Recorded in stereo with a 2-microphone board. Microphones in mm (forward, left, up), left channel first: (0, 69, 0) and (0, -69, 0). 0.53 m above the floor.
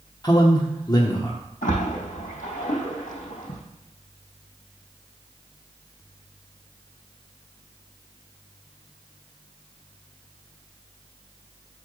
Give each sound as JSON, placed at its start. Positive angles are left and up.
{"t": 0.2, "sound": "a man speaking", "side_deg": 30, "distance_m": 1.0}
{"t": 1.6, "sound": "a splash", "side_deg": 75, "distance_m": 4.0}